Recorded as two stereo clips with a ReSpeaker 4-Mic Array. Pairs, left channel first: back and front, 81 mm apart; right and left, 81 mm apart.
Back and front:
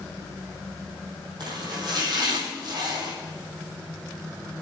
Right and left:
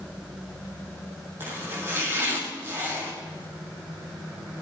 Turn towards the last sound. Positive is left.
turn(degrees=30)